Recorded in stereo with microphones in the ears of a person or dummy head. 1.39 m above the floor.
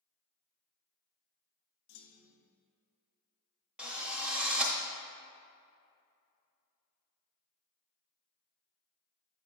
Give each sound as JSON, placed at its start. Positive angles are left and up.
{"t": 1.9, "sound": "a clunk", "side_deg": 55, "distance_m": 0.7}
{"t": 3.8, "sound": "a drill", "side_deg": -5, "distance_m": 0.6}